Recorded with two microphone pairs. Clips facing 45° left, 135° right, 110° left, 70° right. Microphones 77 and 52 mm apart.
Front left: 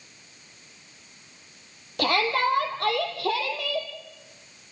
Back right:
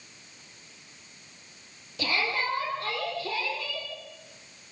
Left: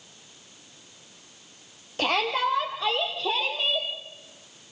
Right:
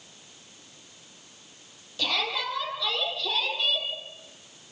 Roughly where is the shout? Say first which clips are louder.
Front left 6 dB, left 5 dB; left.